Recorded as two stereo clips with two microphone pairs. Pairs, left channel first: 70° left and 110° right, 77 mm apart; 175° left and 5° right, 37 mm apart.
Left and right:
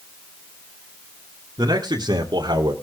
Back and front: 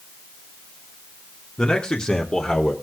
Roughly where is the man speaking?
Behind right.